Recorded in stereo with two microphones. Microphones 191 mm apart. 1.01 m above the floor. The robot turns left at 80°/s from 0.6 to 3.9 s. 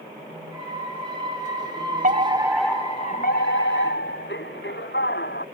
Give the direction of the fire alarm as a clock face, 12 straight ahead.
4 o'clock.